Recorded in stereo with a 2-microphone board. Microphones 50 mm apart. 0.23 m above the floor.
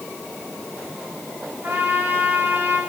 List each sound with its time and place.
1.6 s a trumpet: 45° right (ahead or behind), 5.5 m